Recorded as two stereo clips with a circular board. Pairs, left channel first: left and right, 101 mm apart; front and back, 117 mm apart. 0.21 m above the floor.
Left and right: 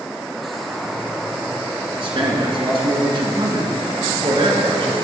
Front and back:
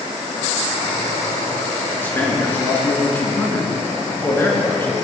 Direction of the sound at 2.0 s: 70° right.